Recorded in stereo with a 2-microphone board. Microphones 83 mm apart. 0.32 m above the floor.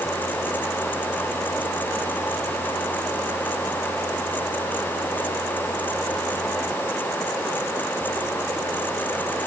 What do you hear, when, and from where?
Only background noise.